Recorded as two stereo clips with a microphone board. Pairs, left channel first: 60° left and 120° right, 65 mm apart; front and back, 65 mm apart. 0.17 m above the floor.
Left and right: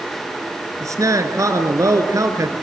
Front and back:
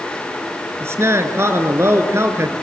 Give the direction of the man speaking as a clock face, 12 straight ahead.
5 o'clock.